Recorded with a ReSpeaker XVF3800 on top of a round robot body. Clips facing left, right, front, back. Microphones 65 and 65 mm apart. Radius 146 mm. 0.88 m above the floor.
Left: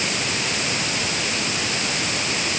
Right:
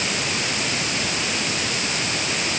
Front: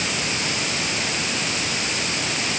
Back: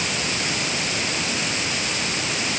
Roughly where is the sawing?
No sawing in this recording.